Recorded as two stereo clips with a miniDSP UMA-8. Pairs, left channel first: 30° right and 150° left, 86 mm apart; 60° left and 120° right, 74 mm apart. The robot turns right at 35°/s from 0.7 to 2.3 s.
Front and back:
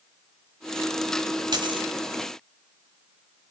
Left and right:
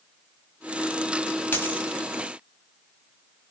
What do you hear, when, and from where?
1.5 s a dropped coin: 120° left, 3.5 m; by 1.9 s 135° left, 3.5 m